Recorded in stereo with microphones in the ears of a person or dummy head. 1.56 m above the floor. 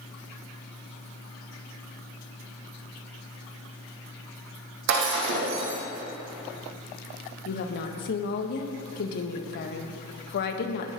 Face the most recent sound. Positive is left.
turn(degrees=65)  # may be behind; listen again after turning